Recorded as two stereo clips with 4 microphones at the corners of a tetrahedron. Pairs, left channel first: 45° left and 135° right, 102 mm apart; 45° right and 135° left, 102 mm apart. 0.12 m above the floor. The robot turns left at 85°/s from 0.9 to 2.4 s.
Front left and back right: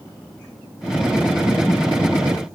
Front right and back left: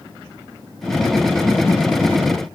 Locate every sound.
Only background noise.